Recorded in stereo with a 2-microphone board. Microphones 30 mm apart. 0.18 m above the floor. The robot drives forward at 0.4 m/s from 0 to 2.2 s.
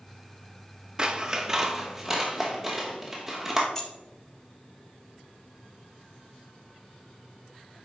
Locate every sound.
1.0 s scissors: 30° right (ahead or behind), 0.5 m; by 3.6 s 15° right (ahead or behind), 1.0 m
3.8 s keys jangling: 10° left (ahead or behind), 1.1 m